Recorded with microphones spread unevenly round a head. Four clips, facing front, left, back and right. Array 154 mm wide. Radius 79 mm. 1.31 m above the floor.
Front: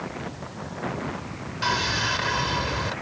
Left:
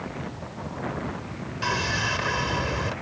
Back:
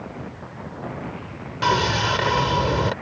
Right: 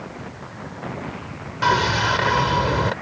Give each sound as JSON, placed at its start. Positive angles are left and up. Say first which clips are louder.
{"t": 1.6, "sound": "sawing", "louder": "right 9 dB, back 6 dB", "azimuth_deg": -120}